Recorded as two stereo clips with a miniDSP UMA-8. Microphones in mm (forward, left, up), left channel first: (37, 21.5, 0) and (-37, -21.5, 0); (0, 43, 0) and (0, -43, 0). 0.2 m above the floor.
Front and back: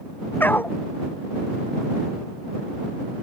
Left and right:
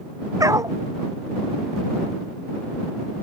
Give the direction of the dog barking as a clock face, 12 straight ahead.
1 o'clock.